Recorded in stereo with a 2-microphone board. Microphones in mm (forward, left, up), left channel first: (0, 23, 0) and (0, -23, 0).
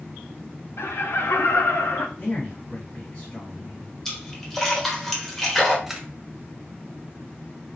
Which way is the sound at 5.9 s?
10° right (ahead or behind).